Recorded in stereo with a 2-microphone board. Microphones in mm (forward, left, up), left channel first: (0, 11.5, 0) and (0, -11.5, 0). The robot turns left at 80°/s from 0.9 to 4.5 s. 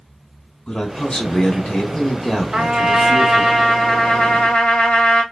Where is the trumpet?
95° right, 1.0 m; by 5.2 s 105° left, 1.0 m.